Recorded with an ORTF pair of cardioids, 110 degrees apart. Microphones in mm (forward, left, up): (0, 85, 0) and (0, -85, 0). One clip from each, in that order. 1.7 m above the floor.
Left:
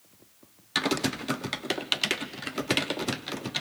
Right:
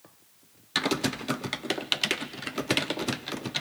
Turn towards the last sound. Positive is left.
turn(degrees=0)